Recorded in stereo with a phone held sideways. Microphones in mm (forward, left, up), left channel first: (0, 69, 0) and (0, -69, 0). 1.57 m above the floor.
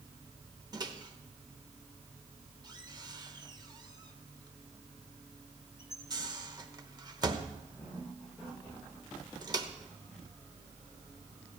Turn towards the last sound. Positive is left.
turn(degrees=-30)  # may be behind; listen again after turning